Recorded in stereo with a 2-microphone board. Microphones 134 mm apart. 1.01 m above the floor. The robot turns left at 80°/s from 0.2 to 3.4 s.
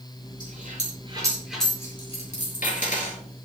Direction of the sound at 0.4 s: 85° right.